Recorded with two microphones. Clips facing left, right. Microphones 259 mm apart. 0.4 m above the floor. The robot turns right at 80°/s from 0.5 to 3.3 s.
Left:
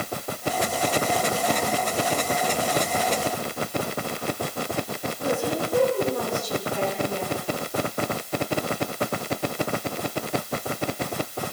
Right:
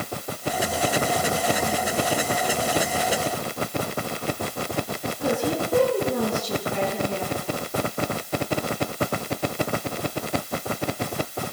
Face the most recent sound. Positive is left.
turn(degrees=-70)  # may be behind; listen again after turning